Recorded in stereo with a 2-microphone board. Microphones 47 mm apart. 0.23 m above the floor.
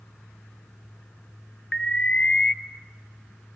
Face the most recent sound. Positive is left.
turn(degrees=15)  # may be behind; listen again after turning